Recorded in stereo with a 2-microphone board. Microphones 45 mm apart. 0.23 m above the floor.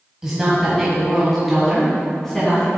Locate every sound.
0.2 s a woman speaking: 15° right (ahead or behind), 1.4 m; by 2.7 s 10° left (ahead or behind), 2 m